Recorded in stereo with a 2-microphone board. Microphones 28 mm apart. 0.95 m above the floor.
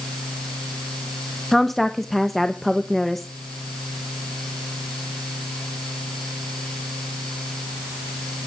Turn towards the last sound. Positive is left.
turn(degrees=5)  # may be behind; listen again after turning